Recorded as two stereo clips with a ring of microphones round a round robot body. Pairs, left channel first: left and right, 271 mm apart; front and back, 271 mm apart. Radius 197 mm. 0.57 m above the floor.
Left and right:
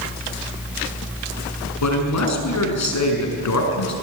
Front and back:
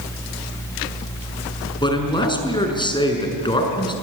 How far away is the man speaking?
About 6.5 m.